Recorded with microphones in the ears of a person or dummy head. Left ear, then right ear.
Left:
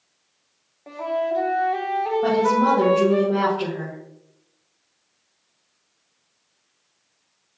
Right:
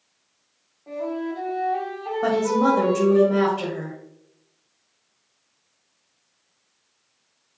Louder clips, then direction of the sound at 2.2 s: Even; 75° right (ahead or behind).